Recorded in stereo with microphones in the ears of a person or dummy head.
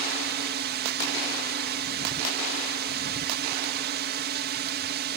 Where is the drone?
50° right (ahead or behind).